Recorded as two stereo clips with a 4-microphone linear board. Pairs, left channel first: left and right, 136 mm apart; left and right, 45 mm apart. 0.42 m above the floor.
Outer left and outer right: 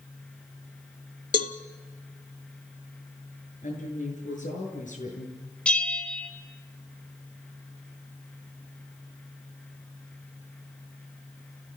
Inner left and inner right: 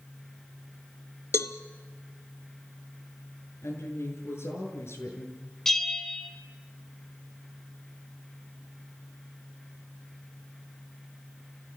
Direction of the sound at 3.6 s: 70° left (ahead or behind).